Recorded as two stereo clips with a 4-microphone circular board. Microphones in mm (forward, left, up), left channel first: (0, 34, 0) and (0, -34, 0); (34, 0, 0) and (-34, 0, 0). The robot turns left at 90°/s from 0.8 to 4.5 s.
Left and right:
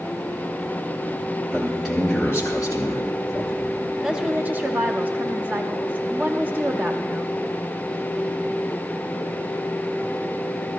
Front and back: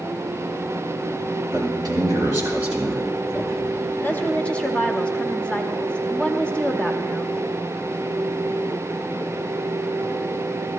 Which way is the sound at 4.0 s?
15° right.